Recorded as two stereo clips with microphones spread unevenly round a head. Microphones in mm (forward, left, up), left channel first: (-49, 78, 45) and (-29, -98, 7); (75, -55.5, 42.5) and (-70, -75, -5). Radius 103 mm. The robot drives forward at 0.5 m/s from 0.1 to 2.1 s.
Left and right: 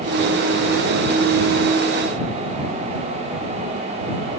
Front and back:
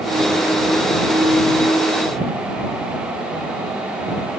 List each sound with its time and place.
Only background noise.